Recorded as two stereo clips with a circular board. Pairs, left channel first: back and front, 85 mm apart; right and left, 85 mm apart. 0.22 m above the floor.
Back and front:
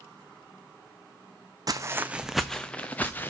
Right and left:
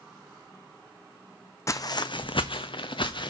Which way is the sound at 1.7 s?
40° right.